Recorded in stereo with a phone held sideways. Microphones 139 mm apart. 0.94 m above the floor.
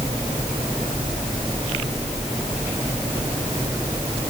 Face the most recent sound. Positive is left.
No sound to turn to.